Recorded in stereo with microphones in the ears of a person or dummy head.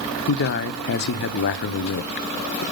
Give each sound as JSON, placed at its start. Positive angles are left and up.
{"t": 0.3, "sound": "a man speaking", "side_deg": 50, "distance_m": 0.7}